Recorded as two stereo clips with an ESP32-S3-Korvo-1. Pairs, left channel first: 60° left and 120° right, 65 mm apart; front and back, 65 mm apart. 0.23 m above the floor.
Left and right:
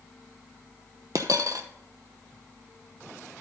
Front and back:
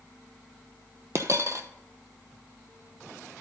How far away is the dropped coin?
About 0.7 m.